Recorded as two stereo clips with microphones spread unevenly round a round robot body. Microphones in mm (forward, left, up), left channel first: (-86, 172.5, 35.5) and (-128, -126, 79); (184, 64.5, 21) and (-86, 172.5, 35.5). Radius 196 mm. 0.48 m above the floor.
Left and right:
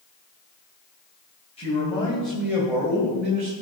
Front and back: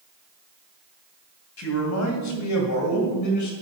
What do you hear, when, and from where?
1.6 s a man speaking: 10° left, 3 m; by 3.5 s 45° right, 2 m